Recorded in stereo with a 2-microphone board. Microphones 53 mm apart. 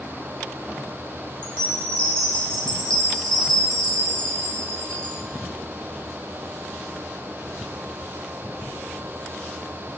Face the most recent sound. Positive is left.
turn(degrees=15)  # may be behind; listen again after turning